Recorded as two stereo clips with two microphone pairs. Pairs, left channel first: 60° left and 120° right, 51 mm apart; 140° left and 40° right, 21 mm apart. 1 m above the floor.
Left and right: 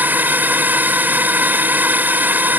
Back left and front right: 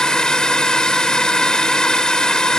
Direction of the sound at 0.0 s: 170° right.